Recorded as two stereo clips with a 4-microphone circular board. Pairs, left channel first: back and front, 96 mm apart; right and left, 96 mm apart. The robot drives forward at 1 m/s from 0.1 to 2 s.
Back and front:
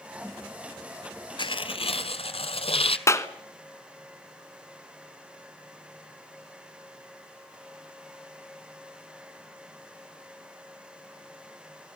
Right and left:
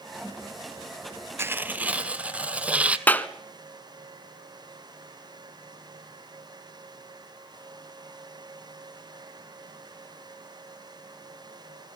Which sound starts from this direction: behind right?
A clap, at 3.1 s.